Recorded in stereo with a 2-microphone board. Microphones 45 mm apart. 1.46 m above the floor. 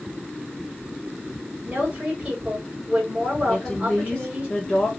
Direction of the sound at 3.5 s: 5° left (ahead or behind).